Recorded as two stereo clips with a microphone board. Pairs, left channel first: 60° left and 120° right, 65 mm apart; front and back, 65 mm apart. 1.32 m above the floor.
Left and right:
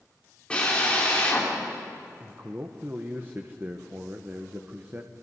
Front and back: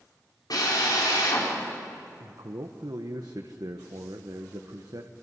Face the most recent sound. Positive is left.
turn(degrees=180)